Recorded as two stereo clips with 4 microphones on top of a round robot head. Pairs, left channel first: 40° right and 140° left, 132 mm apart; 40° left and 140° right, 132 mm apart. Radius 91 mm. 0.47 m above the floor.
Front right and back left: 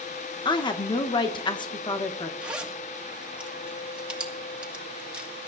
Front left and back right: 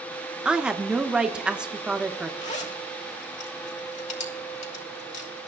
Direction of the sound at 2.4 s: 60° left.